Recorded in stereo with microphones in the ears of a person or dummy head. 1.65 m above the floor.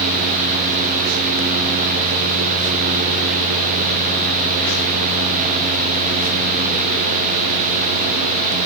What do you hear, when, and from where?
Only background noise.